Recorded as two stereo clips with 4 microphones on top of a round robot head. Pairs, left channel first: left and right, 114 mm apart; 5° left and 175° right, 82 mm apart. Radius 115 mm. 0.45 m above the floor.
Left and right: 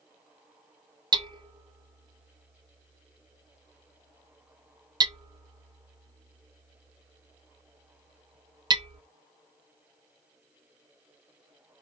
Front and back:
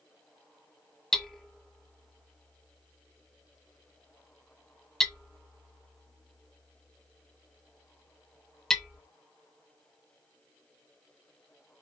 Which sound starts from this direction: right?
Hammering, at 1.1 s.